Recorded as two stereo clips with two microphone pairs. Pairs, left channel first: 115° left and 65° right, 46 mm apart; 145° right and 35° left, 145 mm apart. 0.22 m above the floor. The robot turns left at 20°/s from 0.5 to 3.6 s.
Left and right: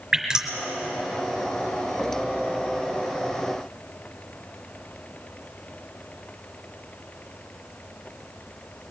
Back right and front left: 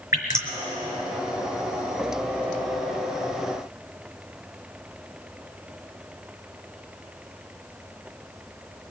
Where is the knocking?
No knocking in this recording.